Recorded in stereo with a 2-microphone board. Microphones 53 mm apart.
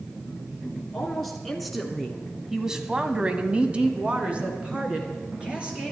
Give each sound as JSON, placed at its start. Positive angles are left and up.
{"t": 0.9, "sound": "a woman speaking", "side_deg": 5, "distance_m": 2.5}